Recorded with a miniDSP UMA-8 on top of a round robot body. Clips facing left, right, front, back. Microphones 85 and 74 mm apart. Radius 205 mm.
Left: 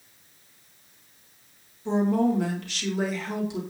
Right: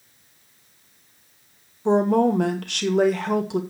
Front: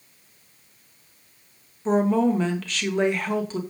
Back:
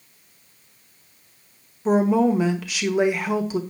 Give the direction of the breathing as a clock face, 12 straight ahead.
No breathing in this recording.